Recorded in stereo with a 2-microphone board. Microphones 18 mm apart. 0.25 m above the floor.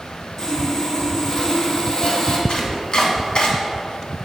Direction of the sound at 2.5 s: 50° left (ahead or behind).